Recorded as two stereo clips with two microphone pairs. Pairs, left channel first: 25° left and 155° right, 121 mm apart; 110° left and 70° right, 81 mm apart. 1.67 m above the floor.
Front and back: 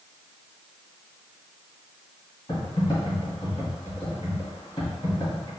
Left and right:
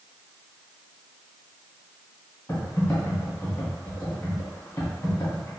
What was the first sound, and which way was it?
Typing on a keyboard, 65° left.